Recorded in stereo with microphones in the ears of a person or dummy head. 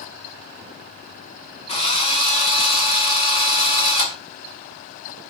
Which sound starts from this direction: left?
A drill, at 1.7 s.